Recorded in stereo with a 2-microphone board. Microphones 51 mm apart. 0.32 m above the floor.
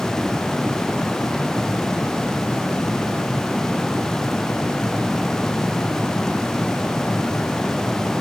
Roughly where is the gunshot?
I don't hear a gunshot.